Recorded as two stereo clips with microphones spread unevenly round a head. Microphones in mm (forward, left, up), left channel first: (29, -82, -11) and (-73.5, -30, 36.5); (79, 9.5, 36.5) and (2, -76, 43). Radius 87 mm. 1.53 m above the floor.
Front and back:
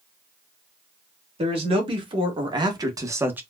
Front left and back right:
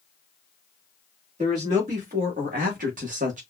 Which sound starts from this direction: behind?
A man speaking, at 1.4 s.